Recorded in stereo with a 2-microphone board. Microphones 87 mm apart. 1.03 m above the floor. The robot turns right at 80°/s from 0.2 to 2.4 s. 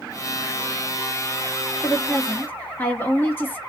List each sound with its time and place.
1.8 s a woman speaking: 20° left (ahead or behind), 0.7 m; by 3.6 s 25° left (ahead or behind), 0.7 m